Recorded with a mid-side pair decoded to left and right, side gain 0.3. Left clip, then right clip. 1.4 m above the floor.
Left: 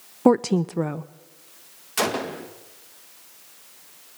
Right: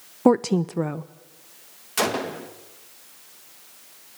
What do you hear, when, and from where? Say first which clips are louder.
0.2 s a woman speaking: even; 10° left, 0.6 m
2.0 s a gunshot: even; straight ahead, 2 m